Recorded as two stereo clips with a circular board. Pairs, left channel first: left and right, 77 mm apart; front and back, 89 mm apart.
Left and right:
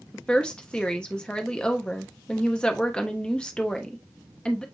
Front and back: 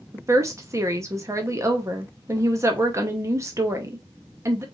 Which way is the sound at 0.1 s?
160° left.